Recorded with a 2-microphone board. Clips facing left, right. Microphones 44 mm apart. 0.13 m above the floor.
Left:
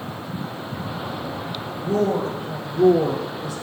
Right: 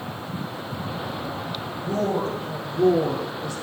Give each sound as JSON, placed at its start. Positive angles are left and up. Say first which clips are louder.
{"t": 1.8, "sound": "a woman speaking", "louder": "left 3 dB", "side_deg": 5, "distance_m": 3.0}